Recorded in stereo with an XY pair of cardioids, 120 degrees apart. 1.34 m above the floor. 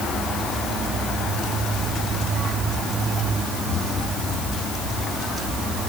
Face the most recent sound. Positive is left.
No sound to turn to.